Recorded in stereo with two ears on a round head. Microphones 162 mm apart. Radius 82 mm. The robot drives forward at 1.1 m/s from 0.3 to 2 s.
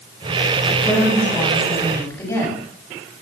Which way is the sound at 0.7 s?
10° left (ahead or behind).